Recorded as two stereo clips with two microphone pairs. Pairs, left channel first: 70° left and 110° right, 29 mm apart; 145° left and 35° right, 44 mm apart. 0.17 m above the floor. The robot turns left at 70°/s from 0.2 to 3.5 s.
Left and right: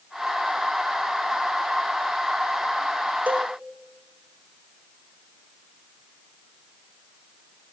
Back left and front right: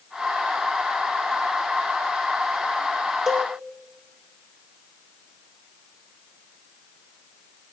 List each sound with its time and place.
3.3 s a cowbell: 125° right, 0.7 m; by 3.5 s 140° right, 0.7 m